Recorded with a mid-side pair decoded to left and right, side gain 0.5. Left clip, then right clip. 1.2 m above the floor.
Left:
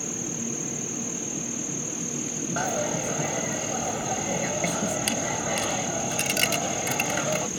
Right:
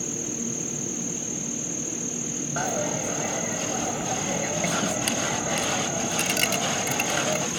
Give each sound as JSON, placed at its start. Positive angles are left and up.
{"t": 0.0, "sound": "an insect", "azimuth_deg": -5}
{"t": 2.6, "sound": "a dropped coin", "azimuth_deg": 5}